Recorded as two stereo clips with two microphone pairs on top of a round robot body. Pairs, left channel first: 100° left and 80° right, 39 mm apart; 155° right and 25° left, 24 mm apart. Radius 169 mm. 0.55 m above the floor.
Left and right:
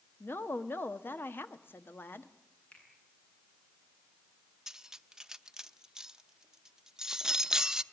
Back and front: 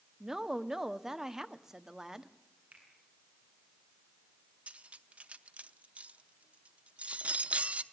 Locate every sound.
0.2 s a woman speaking: 90° left, 1.6 m
2.7 s a finger snap: 40° left, 8.5 m
4.7 s cutlery clinking: 5° right, 0.9 m